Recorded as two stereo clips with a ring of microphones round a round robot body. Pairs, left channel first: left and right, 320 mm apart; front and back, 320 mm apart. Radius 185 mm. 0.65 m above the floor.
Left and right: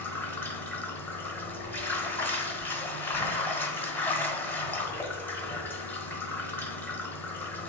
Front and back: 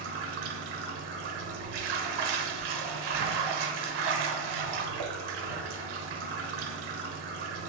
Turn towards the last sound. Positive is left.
turn(degrees=175)